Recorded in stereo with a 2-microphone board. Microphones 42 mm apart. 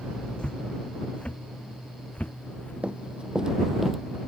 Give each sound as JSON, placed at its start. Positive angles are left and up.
{"t": 0.4, "sound": "footsteps", "side_deg": 25}
{"t": 2.8, "sound": "running footsteps", "side_deg": -35}